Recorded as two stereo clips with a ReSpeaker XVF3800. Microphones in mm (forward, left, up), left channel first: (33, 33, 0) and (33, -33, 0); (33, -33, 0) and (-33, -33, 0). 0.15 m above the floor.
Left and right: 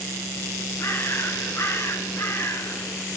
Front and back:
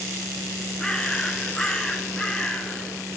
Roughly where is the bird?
Left.